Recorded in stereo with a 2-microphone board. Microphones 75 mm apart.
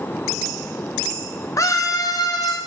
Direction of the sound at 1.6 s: 45° left (ahead or behind).